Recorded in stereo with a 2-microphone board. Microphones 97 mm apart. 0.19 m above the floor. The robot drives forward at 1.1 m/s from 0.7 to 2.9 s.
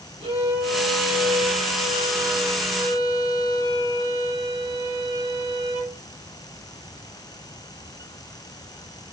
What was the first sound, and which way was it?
A violin, 75° right (ahead or behind).